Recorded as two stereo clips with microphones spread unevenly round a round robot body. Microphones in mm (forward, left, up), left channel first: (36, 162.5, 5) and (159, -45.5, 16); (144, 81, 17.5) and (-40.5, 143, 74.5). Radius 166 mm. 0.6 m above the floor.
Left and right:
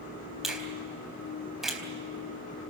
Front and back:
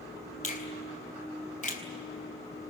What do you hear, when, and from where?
0.4 s a finger snap: 30° left, 4 m